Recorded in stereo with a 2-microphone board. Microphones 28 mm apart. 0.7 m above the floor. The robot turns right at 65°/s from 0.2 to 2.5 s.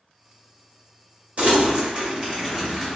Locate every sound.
1.4 s crumpling: 50° right (ahead or behind), 1.2 m; by 3.0 s 15° right (ahead or behind), 1.2 m